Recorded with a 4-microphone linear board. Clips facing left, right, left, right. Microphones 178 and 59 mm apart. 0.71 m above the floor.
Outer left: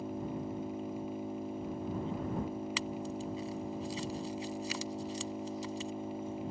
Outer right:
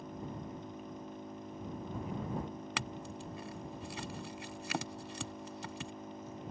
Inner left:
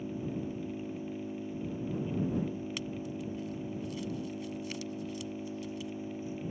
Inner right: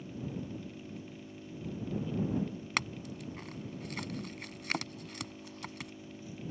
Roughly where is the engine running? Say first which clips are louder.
Outer left 6 dB, inner left 5 dB; left.